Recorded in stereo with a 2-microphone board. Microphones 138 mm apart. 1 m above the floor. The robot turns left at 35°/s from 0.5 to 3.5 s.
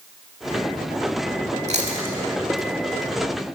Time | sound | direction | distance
1.7 | chewing | 50° right (ahead or behind) | 2 m